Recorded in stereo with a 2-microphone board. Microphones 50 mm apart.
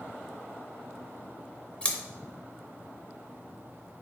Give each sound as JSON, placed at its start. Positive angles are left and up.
{"t": 1.8, "sound": "scissors", "side_deg": 20, "distance_m": 0.5}